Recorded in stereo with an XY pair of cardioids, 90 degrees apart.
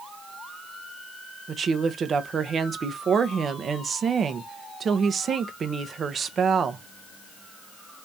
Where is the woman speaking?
55° right, 0.7 m.